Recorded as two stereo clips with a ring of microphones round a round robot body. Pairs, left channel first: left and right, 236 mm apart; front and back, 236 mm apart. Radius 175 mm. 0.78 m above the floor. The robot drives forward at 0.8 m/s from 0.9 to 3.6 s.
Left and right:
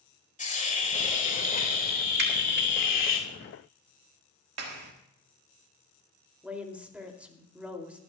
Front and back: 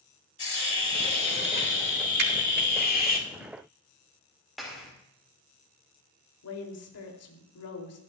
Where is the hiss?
30° left, 3.5 m; by 3.2 s 55° left, 2.5 m.